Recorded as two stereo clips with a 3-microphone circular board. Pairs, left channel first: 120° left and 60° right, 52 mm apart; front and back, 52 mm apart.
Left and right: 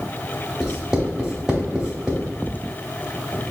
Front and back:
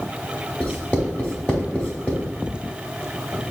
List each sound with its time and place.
0.6 s writing: 5° right, 0.9 m